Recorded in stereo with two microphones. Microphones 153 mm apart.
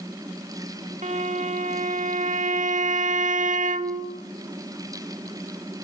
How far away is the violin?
About 1.8 m.